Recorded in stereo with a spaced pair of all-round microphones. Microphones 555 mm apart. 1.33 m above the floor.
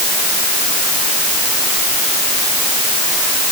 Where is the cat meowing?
No cat meowing in this recording.